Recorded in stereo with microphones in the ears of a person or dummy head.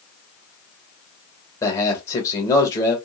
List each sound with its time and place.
1.6 s a man speaking: 25° left (ahead or behind), 1.1 m